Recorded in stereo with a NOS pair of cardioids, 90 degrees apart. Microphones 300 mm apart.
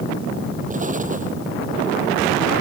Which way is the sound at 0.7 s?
25° right.